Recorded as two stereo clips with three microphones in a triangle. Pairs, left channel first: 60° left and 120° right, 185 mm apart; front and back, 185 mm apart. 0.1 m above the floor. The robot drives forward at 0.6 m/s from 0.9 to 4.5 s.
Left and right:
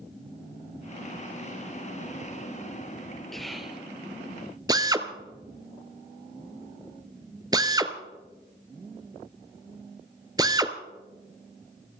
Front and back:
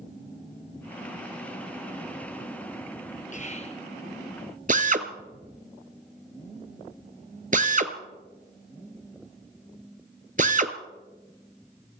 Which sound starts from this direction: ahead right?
Whispering, at 3.3 s.